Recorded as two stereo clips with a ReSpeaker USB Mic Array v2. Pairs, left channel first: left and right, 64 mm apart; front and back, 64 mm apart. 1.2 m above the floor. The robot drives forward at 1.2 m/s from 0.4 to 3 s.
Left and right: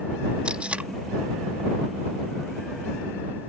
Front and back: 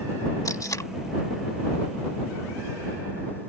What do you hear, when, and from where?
0.5 s tape being pulled: 20° right; by 0.9 s 25° right